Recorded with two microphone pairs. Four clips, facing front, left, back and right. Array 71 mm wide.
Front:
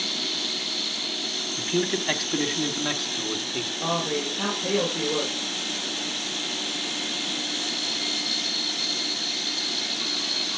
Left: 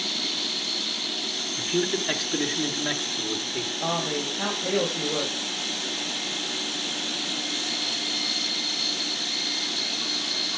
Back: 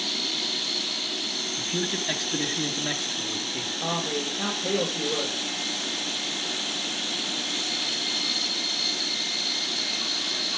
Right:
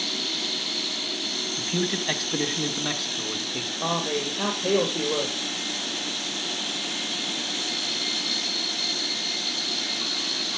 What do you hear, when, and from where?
1.6 s a man speaking: 25° right, 1.4 m; by 3.7 s 35° right, 2.5 m
3.8 s a man speaking: 65° right, 6.5 m